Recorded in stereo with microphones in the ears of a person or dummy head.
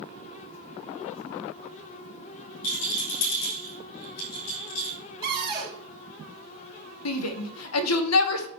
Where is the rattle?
80° left, 5.5 m.